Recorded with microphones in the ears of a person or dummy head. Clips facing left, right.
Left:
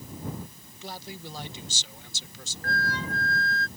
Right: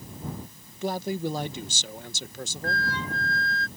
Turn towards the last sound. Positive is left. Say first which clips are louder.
# even
turn(degrees=40)  # may be behind; listen again after turning